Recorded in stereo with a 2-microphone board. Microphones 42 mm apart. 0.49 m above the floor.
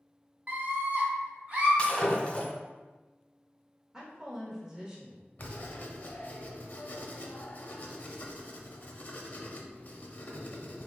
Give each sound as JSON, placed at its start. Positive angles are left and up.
{"t": 0.5, "sound": "a scream", "side_deg": -40, "distance_m": 1.0}
{"t": 1.8, "sound": "breaking glass", "side_deg": 25, "distance_m": 1.6}
{"t": 3.9, "sound": "a woman speaking", "side_deg": -15, "distance_m": 1.1}
{"t": 5.4, "sound": "writing", "side_deg": 40, "distance_m": 0.6}